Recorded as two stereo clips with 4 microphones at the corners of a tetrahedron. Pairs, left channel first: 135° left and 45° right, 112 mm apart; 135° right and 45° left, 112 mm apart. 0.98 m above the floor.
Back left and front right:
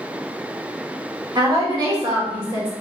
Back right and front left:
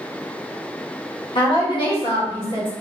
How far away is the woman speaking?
About 1.7 m.